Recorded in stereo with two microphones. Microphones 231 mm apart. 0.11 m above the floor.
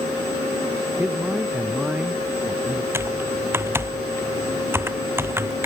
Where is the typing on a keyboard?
10° right (ahead or behind).